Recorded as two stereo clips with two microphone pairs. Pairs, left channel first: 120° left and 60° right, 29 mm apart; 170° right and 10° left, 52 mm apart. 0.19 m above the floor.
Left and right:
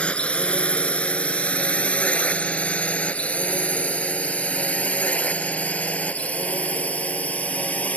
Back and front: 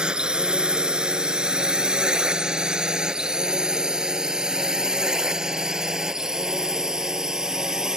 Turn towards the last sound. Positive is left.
turn(degrees=90)